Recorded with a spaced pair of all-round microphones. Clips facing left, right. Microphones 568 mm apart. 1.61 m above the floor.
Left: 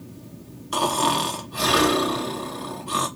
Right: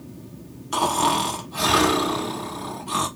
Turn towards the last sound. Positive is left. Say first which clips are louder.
# even
turn(degrees=-10)  # may be behind; listen again after turning